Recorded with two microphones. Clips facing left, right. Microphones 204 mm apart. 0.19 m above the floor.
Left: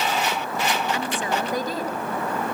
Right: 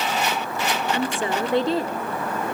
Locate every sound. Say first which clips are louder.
0.9 s a woman speaking: right 2 dB; 25° right (ahead or behind), 2.5 m